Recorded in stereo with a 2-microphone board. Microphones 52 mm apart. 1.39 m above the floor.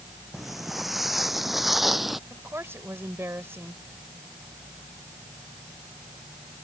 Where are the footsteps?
5° right (ahead or behind).